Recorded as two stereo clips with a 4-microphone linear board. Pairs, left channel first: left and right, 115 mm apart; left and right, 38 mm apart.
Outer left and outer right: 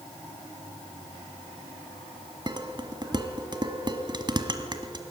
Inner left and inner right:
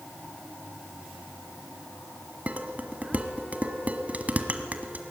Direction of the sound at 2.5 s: 40° right (ahead or behind).